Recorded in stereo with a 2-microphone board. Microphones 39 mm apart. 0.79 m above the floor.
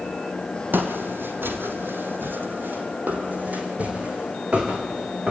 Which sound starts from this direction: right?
Footsteps, at 0.7 s.